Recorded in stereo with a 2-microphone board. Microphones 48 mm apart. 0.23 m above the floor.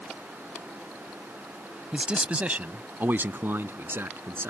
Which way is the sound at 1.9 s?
15° right (ahead or behind).